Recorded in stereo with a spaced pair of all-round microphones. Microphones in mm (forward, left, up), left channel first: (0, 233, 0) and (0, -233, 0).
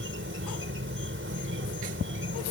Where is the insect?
25° right (ahead or behind).